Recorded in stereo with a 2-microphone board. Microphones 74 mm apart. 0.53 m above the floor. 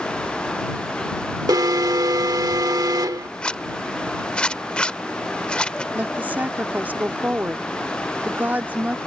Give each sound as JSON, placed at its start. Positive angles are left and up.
{"t": 1.5, "sound": "an alarm", "side_deg": -60}
{"t": 3.4, "sound": "a zipper", "side_deg": 15}
{"t": 5.9, "sound": "a woman speaking", "side_deg": -25}